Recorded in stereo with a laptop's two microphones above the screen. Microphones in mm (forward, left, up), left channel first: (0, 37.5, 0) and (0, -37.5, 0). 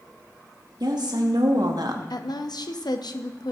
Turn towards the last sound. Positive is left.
turn(degrees=65)  # may be behind; listen again after turning